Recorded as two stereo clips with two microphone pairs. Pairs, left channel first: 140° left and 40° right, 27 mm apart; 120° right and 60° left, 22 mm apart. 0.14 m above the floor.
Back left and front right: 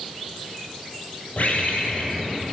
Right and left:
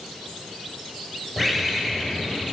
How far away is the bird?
About 1.7 m.